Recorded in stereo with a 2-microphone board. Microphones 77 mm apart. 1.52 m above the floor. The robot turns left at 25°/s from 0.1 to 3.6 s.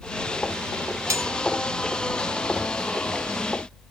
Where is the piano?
No piano in this recording.